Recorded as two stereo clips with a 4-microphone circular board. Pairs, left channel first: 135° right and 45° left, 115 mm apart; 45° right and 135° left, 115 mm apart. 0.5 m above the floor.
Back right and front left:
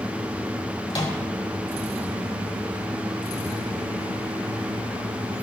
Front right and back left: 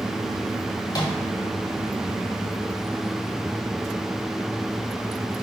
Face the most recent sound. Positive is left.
turn(degrees=-100)